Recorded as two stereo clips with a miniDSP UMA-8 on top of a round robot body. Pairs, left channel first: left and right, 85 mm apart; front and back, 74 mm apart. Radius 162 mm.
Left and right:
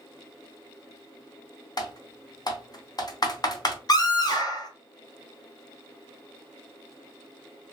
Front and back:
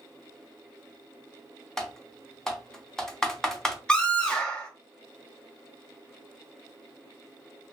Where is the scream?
75° left, 1.3 m.